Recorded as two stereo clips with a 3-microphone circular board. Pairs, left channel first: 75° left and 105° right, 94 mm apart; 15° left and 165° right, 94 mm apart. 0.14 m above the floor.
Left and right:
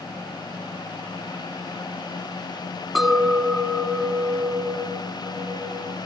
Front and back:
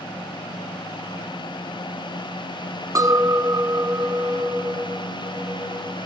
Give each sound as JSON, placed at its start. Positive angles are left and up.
{"t": 3.0, "sound": "a clink", "azimuth_deg": 165, "distance_m": 1.3}